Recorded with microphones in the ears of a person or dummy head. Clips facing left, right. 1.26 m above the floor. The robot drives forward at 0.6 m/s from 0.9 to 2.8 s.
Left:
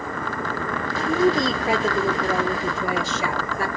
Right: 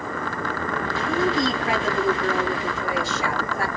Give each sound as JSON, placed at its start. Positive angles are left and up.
{"t": 1.1, "sound": "a woman speaking", "side_deg": 70, "distance_m": 1.9}